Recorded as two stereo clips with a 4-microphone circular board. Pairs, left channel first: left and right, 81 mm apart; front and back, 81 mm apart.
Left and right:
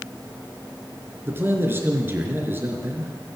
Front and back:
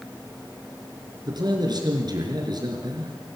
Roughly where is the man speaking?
Behind right.